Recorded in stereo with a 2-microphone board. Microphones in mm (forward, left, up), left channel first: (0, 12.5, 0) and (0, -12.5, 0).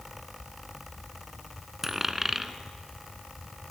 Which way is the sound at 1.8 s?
10° right (ahead or behind).